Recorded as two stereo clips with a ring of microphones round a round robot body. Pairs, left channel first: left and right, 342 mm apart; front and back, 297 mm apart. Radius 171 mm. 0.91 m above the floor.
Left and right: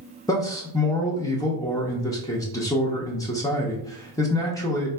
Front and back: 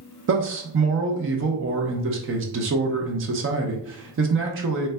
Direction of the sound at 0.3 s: 165° left.